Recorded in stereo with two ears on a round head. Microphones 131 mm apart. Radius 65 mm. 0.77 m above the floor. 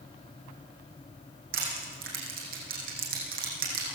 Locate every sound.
1.5 s crushing: 70° right (ahead or behind), 7.5 m